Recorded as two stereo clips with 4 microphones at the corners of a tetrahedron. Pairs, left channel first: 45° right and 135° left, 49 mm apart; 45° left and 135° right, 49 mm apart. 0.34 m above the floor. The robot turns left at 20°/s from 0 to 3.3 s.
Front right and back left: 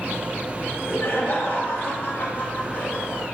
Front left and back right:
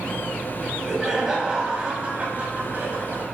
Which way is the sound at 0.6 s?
45° right.